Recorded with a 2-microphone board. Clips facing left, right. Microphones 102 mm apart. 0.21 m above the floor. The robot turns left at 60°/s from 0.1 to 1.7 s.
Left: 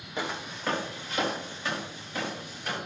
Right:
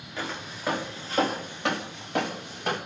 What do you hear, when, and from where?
0.2 s footsteps: 15° left (ahead or behind), 4 m; by 2.8 s 55° right (ahead or behind), 3.5 m